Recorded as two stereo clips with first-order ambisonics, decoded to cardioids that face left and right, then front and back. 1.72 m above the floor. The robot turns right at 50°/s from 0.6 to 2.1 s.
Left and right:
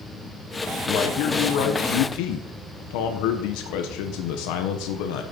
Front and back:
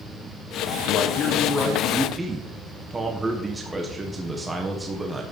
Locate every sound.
0.9 s a man speaking: 40° left, 1.4 m; by 5.2 s 100° left, 1.4 m